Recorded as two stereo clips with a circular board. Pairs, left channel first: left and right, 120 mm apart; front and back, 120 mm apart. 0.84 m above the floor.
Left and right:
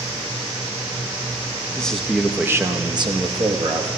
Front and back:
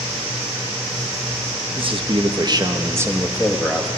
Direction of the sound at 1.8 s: 170° left.